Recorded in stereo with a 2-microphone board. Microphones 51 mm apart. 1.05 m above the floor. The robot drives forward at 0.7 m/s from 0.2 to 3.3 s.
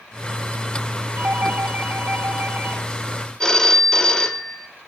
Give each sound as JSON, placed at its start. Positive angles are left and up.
{"t": 1.2, "sound": "a doorbell", "side_deg": -45, "distance_m": 4.0}
{"t": 3.4, "sound": "a phone ringing", "side_deg": 15, "distance_m": 1.9}